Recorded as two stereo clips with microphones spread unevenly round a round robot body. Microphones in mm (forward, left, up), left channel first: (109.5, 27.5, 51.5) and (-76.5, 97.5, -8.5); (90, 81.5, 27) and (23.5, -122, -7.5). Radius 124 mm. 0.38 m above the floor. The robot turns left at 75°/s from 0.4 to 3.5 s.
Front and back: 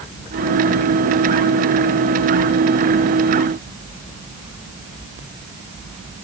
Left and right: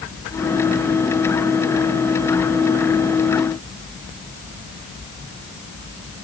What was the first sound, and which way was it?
Only background noise.